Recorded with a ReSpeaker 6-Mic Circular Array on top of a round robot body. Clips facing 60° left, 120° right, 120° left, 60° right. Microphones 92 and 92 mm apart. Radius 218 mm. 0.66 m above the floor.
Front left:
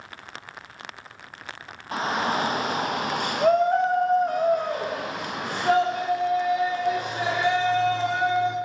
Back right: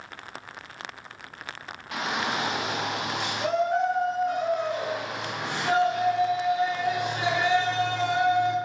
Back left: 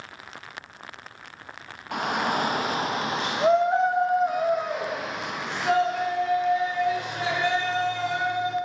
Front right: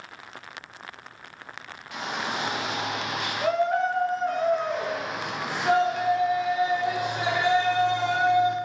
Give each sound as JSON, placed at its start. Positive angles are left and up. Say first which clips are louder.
{"t": 1.9, "sound": "a shout", "louder": "front left 4 dB, back left 5 dB", "azimuth_deg": 105, "distance_m": 1.6}